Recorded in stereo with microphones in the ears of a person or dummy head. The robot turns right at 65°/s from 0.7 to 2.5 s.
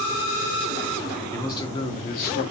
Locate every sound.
1.3 s a man speaking: 15° left, 0.7 m; by 2.4 s 90° left, 0.7 m